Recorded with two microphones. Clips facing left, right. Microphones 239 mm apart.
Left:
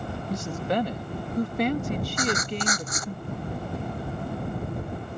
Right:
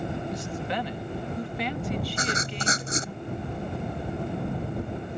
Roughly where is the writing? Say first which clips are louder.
Left 4 dB; right.